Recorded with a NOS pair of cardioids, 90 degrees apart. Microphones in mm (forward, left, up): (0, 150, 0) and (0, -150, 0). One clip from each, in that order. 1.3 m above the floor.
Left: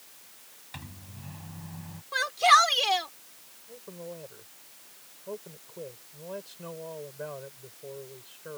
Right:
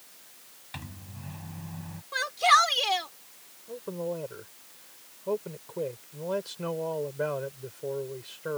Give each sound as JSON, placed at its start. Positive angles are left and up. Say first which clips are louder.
{"t": 0.7, "sound": "a microwave", "louder": "right 2 dB", "azimuth_deg": -20}
{"t": 2.1, "sound": "a shout", "louder": "left 1 dB", "azimuth_deg": 10}
{"t": 3.7, "sound": "a man speaking", "louder": "right 9 dB", "azimuth_deg": -60}